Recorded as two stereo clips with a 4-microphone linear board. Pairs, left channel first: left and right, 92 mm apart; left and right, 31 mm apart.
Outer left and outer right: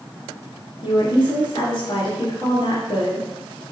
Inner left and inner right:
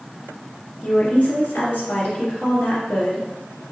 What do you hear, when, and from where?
0.8 s a woman speaking: 50° left (ahead or behind), 2.0 m